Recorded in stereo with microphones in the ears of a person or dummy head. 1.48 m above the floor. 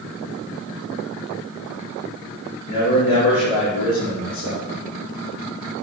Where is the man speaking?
70° left (ahead or behind), 3.5 m; by 4.6 s 85° left, 5 m.